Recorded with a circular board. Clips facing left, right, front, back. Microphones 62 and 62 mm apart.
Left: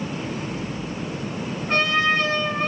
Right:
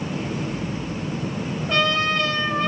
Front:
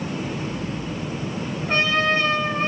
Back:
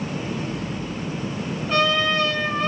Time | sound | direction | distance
1.7 | a trumpet | 45° left | 5 m